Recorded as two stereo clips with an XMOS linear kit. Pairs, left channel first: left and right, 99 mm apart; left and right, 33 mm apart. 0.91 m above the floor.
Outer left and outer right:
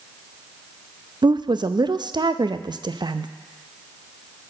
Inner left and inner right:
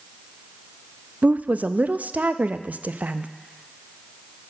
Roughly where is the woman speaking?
Right.